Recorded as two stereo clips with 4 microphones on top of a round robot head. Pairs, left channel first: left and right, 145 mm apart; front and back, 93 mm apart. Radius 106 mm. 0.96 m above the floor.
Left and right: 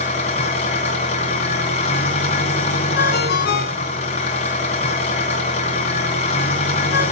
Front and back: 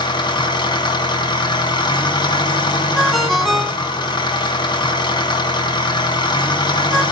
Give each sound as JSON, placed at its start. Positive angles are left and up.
{"t": 0.0, "sound": "an engine running", "azimuth_deg": 35, "distance_m": 2.0}
{"t": 3.0, "sound": "a ringtone", "azimuth_deg": 85, "distance_m": 2.5}